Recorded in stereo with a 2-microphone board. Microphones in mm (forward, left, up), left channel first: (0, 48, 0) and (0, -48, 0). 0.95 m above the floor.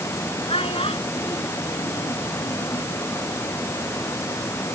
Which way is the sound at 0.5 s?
85° left.